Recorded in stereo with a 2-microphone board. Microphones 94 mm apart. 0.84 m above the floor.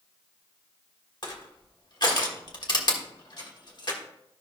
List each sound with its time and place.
1.2 s crushing: 50° left (ahead or behind), 1.5 m